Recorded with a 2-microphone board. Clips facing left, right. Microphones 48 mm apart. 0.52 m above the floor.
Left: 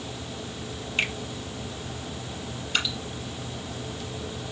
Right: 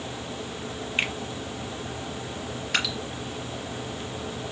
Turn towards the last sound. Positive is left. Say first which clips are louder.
# right 1 dB
turn(degrees=-85)